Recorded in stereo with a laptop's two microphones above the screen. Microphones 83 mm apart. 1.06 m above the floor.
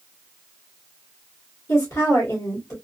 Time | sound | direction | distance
1.7 | a woman speaking | 40° left (ahead or behind) | 1.2 m